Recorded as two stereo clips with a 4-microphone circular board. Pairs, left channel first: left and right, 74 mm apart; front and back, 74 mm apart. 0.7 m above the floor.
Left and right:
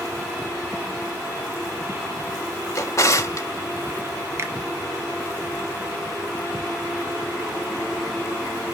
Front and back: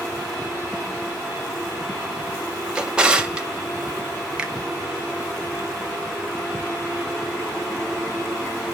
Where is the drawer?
110° left, 0.6 m.